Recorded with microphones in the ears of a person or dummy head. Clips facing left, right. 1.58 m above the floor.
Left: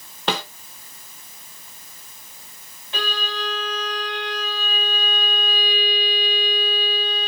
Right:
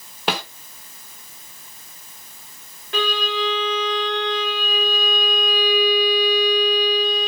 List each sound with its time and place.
0.3 s a snare drum: 10° right (ahead or behind), 1.4 m
2.9 s a violin: 50° right (ahead or behind), 3 m